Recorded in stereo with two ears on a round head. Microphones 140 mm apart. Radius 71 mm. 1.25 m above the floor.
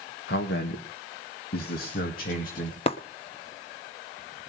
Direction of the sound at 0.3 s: 75° left (ahead or behind).